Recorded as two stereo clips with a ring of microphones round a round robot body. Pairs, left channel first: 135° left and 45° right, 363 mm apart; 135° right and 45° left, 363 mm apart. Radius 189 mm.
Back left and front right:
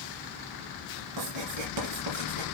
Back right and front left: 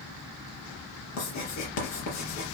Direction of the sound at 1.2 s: 90° right.